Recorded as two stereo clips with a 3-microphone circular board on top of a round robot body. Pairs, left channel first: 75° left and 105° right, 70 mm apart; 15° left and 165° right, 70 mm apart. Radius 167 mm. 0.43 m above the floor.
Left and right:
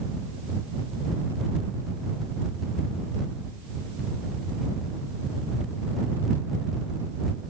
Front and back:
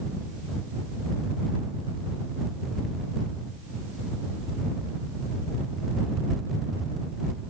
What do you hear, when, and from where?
Only background noise.